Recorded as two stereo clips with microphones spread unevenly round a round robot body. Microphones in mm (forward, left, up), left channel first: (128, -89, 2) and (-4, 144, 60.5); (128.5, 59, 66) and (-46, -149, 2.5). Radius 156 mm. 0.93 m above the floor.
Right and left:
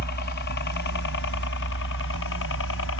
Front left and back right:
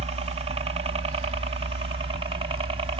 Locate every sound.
0.0 s a helicopter: 85° right; by 3.0 s 70° right